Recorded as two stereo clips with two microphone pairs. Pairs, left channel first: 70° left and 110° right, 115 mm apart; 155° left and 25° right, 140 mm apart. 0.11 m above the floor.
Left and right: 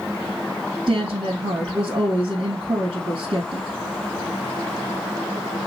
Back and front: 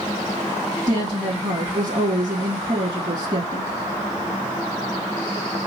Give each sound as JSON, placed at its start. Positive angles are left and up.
{"t": 0.9, "sound": "a woman speaking", "azimuth_deg": -75, "distance_m": 2.5}